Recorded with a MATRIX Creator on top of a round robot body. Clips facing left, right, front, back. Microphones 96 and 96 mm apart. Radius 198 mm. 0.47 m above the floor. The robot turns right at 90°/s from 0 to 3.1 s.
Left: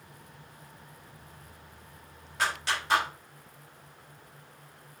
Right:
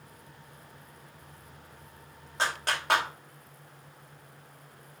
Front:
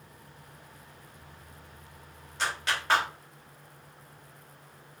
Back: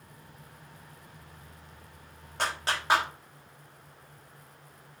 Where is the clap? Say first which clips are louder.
Even, even; 150° right, 3 m; by 3.1 s 90° right, 3 m.